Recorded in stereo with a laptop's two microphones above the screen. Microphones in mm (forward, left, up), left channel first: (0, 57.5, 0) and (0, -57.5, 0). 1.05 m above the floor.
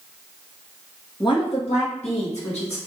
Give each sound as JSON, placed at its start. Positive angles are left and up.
{"t": 1.2, "sound": "a woman speaking", "side_deg": 40, "distance_m": 1.0}